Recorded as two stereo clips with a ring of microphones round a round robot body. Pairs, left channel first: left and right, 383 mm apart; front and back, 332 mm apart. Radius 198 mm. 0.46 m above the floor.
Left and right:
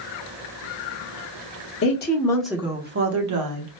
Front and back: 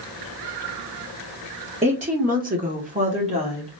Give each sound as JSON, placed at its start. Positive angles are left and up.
{"t": 1.8, "sound": "a woman speaking", "azimuth_deg": 120, "distance_m": 1.0}